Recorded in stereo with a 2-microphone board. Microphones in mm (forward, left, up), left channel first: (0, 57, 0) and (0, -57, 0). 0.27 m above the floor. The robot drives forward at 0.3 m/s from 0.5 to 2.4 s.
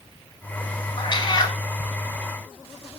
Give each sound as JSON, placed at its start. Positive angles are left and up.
{"t": 1.0, "sound": "a cat meowing", "side_deg": 45, "distance_m": 1.0}